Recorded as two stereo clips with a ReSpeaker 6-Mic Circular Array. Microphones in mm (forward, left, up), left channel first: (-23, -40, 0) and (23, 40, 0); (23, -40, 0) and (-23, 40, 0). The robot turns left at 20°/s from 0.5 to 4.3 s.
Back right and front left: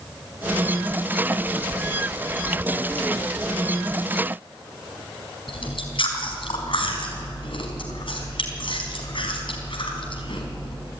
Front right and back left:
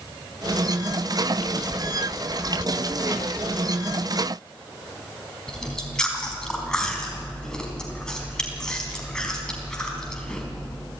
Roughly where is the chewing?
Behind right.